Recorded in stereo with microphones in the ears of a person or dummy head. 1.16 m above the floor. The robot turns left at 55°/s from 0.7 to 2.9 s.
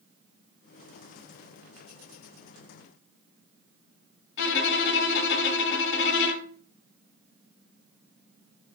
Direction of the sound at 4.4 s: 65° left (ahead or behind).